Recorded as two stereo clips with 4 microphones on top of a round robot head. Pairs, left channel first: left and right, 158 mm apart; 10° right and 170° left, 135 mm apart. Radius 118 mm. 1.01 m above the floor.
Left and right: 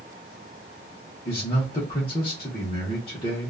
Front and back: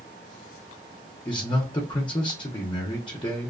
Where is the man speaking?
40° left, 0.8 m.